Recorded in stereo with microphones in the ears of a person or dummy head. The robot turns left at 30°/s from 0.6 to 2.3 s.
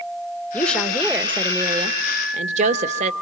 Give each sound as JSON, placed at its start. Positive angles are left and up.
{"t": 0.5, "sound": "a woman speaking", "azimuth_deg": 0, "distance_m": 1.4}